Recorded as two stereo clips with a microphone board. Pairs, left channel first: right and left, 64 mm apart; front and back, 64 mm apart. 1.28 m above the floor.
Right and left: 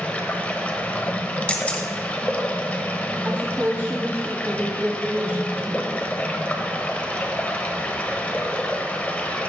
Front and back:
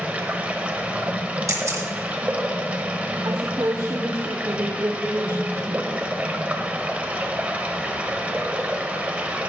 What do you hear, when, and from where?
0.0 s running water: 135° right, 1.1 m
1.5 s a camera shutter: 155° right, 1.7 m
3.2 s a woman speaking: 155° left, 0.7 m